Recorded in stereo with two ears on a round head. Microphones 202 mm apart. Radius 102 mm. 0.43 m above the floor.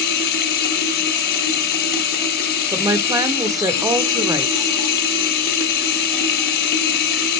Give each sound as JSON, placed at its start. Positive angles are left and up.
{"t": 0.0, "sound": "running water", "side_deg": 45, "distance_m": 0.9}
{"t": 2.7, "sound": "a woman speaking", "side_deg": -15, "distance_m": 0.8}